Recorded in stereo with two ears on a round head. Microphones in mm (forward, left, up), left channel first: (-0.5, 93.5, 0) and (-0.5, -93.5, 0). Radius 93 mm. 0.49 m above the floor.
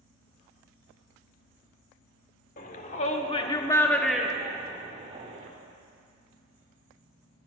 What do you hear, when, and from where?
2.6 s a shout: 40° left (ahead or behind), 1.3 m; by 5.5 s 35° right (ahead or behind), 1.3 m